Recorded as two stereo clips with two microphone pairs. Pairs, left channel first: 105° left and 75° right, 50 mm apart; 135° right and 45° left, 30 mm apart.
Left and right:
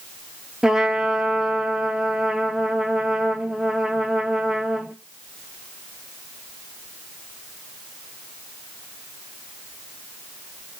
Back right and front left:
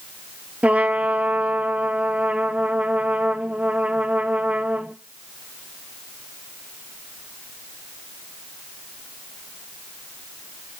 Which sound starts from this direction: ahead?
A trumpet, at 0.6 s.